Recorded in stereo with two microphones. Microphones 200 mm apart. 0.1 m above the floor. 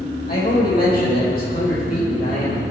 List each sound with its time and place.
0.3 s a man speaking: 50° left (ahead or behind), 4 m; by 2.7 s 45° left (ahead or behind), 5.5 m